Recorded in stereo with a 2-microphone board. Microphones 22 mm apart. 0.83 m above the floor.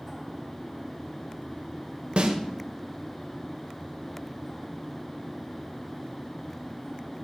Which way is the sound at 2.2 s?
55° right (ahead or behind).